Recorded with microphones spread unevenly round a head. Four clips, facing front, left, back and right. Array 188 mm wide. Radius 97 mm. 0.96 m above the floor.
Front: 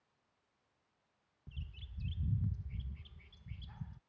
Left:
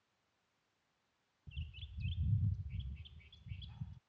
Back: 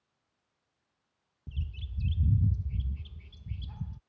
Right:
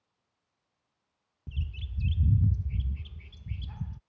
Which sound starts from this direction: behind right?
A bird, at 1.5 s.